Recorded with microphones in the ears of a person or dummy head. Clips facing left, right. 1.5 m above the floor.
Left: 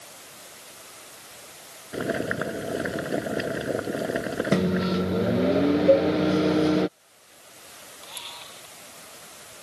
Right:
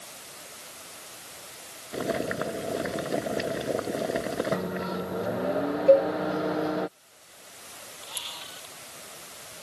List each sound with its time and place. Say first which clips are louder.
1.9 s boiling: left 1 dB; 5° left (ahead or behind)
4.5 s a microwave: left 7 dB; 35° left (ahead or behind)
5.9 s a cowbell: right 2 dB; 5° right (ahead or behind)
8.0 s a camera shutter: left 2 dB; 10° right (ahead or behind)